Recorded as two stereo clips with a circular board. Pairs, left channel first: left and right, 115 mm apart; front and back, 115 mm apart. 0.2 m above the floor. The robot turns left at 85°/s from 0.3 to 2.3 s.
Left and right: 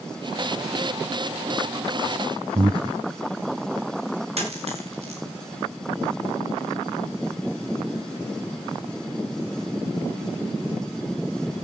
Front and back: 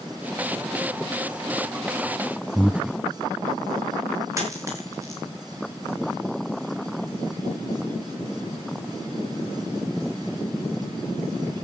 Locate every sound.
2.5 s breathing: 105° right, 0.7 m
4.4 s a dropped coin: 115° right, 8 m